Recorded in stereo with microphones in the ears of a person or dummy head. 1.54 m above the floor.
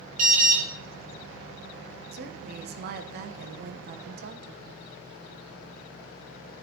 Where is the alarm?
40° right (ahead or behind), 1.7 m.